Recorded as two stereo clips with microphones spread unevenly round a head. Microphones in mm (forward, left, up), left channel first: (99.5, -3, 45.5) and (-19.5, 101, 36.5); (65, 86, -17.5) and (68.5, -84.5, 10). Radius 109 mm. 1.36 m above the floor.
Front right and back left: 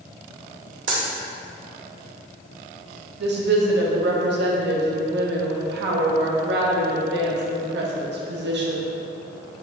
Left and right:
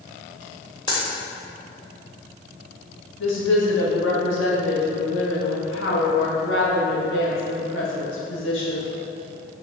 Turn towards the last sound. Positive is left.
turn(degrees=130)